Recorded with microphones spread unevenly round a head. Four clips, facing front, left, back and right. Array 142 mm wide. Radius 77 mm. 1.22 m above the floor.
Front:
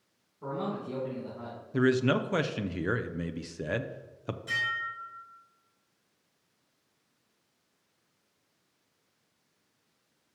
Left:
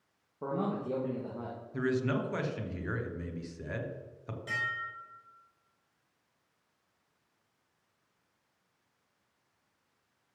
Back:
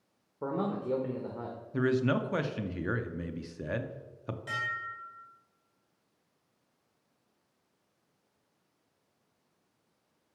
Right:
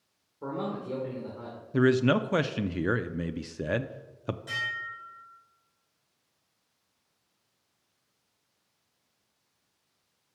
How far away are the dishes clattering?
About 4 m.